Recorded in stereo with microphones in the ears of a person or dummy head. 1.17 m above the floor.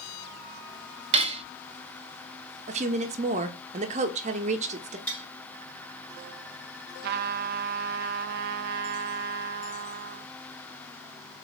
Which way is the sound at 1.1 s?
35° right (ahead or behind).